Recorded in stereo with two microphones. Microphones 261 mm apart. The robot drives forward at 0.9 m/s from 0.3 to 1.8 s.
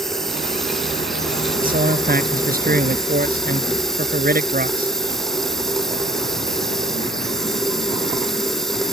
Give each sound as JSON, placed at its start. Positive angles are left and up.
{"t": 0.0, "sound": "running water", "side_deg": 0}
{"t": 1.6, "sound": "a man speaking", "side_deg": -35}